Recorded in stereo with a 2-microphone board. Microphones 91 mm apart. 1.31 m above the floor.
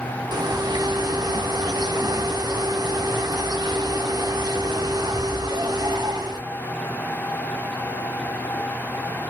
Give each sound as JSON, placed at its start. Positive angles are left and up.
{"t": 0.3, "sound": "a bird", "side_deg": -50, "distance_m": 0.7}